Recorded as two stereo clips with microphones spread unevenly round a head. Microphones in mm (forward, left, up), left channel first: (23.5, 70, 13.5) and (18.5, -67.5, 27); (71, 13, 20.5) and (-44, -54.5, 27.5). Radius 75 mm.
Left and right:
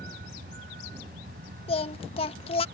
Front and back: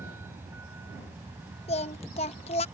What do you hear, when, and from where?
0.0 s a vehicle: 75° right
1.7 s singing: 55° left